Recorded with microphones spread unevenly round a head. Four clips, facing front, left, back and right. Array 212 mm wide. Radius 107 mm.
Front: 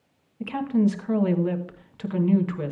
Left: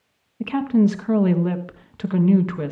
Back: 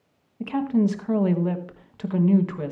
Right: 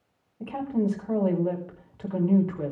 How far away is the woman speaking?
About 1.1 m.